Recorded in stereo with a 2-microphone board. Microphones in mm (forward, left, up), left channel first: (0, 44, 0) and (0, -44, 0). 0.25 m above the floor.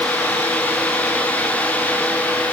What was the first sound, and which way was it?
Only background noise.